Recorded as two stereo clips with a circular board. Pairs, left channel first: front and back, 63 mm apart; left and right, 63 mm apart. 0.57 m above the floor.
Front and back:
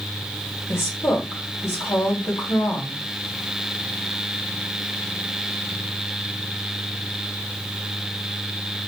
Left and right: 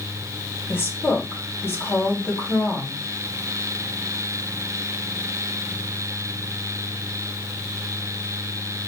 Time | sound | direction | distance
0.7 | a woman speaking | 40° left | 3 m